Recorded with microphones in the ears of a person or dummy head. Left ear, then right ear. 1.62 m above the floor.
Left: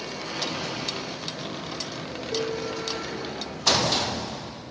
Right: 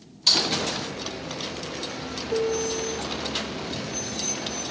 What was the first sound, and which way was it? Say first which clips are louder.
A piano: right 4 dB; 70° right (ahead or behind).